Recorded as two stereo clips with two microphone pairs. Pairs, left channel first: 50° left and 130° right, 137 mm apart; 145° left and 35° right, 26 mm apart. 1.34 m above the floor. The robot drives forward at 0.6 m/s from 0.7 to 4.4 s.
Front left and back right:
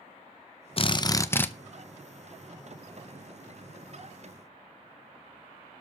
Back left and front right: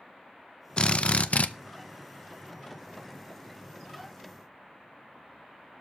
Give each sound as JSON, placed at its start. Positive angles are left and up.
{"t": 0.8, "sound": "a drill", "azimuth_deg": 90, "distance_m": 0.7}